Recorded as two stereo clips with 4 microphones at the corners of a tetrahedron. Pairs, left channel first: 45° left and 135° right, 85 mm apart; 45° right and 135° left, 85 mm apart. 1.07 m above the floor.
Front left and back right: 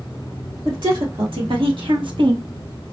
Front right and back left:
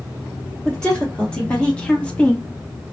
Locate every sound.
0.7 s a woman speaking: 125° right, 2 m; by 2.5 s 120° right, 0.6 m